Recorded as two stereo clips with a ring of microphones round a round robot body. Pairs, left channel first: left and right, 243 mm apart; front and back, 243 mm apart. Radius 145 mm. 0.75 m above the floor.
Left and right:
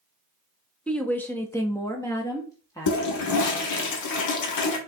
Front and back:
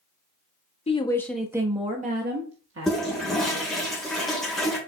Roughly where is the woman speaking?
Ahead.